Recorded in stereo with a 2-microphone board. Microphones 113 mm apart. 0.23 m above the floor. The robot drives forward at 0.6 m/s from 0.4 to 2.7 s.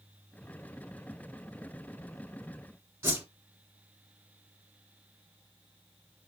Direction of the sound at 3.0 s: 20° right (ahead or behind).